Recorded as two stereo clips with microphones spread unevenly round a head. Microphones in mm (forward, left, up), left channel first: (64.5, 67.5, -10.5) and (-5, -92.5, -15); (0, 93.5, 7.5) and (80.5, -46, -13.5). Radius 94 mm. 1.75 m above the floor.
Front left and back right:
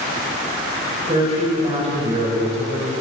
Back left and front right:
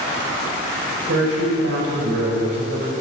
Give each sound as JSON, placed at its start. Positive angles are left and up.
{"t": 1.1, "sound": "a woman speaking", "azimuth_deg": -60, "distance_m": 6.5}